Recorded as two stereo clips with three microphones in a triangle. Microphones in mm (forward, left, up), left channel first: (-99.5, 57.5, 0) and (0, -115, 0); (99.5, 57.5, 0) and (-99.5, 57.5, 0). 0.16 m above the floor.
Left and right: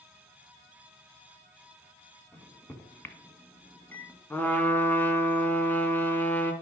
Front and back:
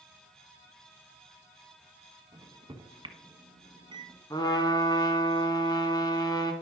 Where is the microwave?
175° right, 1.2 m.